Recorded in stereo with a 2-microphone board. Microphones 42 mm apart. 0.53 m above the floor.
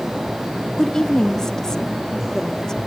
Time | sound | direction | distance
0.8 | a woman speaking | 15° left (ahead or behind) | 0.8 m